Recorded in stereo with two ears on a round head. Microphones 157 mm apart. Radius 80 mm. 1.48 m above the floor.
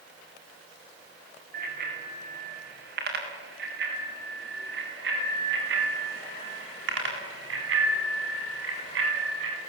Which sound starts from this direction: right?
A bicycle bell, at 1.5 s.